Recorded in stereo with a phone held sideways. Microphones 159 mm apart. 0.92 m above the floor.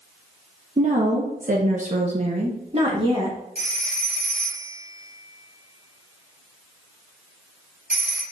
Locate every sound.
0.8 s a woman speaking: 45° right (ahead or behind), 0.8 m; by 3.4 s 30° right (ahead or behind), 1.5 m
3.5 s a phone ringing: 65° right (ahead or behind), 2 m